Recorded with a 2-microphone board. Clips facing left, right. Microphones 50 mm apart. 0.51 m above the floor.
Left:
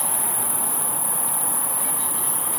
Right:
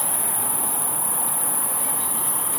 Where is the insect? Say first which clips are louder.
Even; 65° right (ahead or behind), 3 m.